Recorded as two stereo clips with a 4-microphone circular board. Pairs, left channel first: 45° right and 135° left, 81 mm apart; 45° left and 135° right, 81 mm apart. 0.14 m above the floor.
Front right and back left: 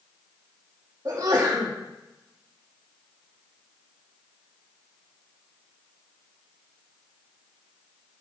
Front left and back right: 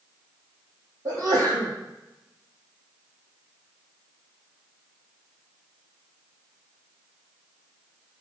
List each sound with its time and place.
1.1 s a sneeze: straight behind, 4.5 m